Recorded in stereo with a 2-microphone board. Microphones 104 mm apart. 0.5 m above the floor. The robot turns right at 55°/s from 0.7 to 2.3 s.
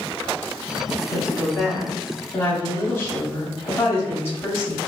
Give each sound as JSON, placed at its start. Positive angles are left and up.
{"t": 1.1, "sound": "a woman speaking", "azimuth_deg": 75, "distance_m": 0.9}